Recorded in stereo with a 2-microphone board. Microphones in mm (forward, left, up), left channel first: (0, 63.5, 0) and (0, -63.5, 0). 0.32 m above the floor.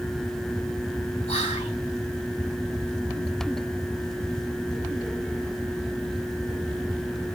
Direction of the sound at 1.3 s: 50° left (ahead or behind).